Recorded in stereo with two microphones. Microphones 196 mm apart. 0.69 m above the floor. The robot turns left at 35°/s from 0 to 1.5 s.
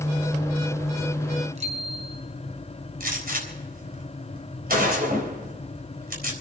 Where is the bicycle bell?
35° right (ahead or behind), 3.5 m.